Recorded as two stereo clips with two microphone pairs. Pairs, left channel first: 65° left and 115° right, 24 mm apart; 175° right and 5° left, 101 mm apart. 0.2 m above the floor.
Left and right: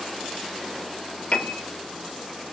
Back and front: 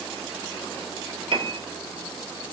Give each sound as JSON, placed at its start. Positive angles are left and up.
{"t": 1.3, "sound": "a piano", "azimuth_deg": 30, "distance_m": 0.5}